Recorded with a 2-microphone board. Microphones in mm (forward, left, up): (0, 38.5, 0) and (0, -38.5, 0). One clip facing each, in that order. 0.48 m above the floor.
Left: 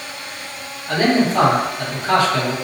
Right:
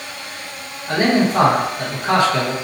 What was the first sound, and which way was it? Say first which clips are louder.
A man speaking: even; 25° right (ahead or behind).